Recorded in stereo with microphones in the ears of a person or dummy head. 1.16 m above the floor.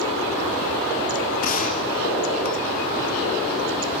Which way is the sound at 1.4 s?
45° left (ahead or behind).